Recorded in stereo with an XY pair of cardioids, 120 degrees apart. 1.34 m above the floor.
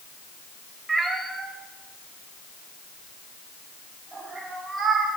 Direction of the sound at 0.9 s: 10° right.